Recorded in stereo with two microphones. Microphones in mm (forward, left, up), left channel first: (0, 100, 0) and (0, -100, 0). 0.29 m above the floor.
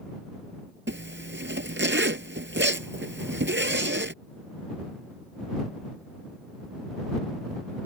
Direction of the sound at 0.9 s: 70° right (ahead or behind).